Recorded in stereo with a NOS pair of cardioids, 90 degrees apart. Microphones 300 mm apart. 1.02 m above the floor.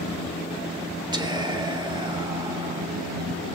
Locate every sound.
1.1 s whispering: 15° right, 2 m